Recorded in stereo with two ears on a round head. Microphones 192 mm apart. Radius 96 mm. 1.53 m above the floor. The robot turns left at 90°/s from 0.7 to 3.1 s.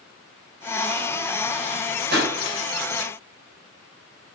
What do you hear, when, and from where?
2.1 s a pop: 50° right (ahead or behind), 4 m; by 2.3 s 70° right (ahead or behind), 4 m